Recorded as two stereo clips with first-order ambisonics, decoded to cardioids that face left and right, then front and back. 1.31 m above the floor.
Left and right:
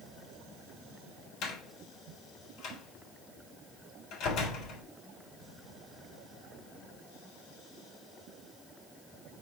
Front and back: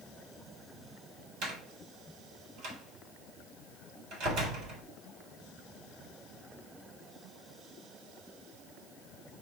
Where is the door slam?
140° left, 3.5 m.